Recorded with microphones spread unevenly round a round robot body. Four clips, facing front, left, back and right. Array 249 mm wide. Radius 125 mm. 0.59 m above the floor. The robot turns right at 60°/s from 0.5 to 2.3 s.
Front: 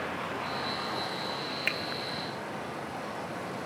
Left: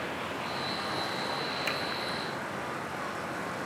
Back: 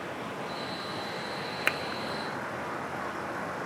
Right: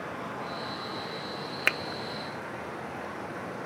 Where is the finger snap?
105° right, 0.5 m; by 1.8 s 100° right, 0.5 m.